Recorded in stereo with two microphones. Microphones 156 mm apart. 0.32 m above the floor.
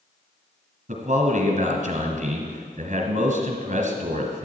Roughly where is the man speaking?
Right.